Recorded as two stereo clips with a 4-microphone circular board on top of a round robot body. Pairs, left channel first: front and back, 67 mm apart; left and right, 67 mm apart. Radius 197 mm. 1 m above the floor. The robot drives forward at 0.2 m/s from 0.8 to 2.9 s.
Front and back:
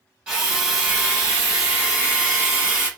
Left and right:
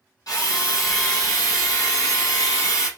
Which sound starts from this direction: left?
A drill, at 0.3 s.